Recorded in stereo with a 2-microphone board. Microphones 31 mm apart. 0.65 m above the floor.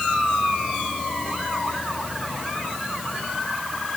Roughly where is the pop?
I don't hear a pop.